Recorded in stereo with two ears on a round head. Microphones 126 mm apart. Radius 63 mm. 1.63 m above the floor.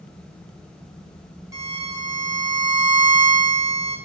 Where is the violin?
25° right (ahead or behind), 4.5 m.